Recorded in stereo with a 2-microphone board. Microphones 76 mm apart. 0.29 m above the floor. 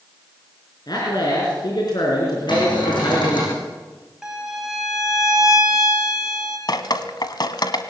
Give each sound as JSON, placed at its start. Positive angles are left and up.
{"t": 0.9, "sound": "a man speaking", "side_deg": 60, "distance_m": 4.0}
{"t": 2.5, "sound": "a cupboard door", "side_deg": 80, "distance_m": 9.5}
{"t": 4.2, "sound": "a violin", "side_deg": -5, "distance_m": 3.5}
{"t": 6.7, "sound": "dripping", "side_deg": 65, "distance_m": 1.3}